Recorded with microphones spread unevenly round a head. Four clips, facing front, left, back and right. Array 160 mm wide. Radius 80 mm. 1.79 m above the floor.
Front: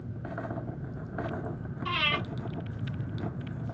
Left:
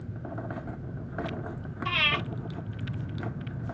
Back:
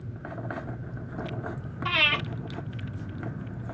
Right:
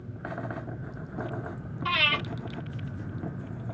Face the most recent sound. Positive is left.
turn(degrees=-145)